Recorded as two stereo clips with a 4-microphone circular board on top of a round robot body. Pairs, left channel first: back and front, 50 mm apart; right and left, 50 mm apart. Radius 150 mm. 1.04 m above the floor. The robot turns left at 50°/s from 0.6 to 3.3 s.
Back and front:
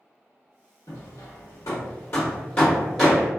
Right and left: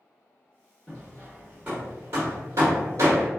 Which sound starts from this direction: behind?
Hammering, at 0.9 s.